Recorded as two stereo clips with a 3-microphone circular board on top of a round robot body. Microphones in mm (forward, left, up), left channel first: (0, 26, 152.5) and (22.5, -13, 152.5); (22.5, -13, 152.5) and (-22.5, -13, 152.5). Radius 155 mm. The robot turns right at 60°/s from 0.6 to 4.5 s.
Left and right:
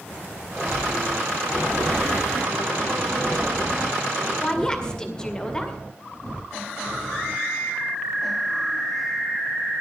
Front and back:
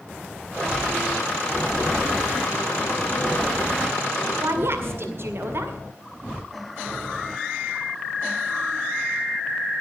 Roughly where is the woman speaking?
Behind.